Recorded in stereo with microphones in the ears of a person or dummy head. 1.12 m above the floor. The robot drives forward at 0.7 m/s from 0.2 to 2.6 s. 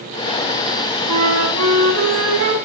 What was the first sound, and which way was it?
A flute, 80° right.